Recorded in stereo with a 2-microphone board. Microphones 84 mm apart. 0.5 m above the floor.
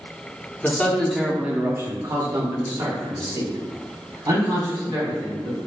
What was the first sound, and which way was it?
A man speaking, 20° left (ahead or behind).